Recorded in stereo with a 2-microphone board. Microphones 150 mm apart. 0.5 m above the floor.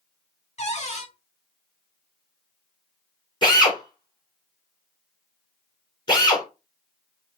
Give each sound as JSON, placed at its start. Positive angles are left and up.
{"t": 0.6, "sound": "a cupboard door", "side_deg": 45, "distance_m": 0.9}
{"t": 3.4, "sound": "a drill", "side_deg": 30, "distance_m": 2.5}